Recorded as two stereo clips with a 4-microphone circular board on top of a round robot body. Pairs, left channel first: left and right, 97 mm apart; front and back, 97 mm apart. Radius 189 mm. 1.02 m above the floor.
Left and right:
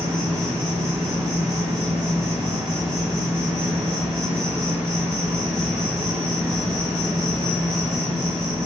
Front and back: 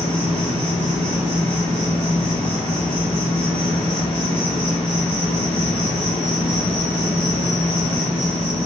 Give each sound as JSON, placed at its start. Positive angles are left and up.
{"t": 0.0, "sound": "an insect", "azimuth_deg": -35, "distance_m": 1.1}